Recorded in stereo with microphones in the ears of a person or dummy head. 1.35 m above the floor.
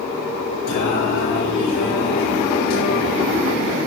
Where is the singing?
55° left (ahead or behind), 7.5 m.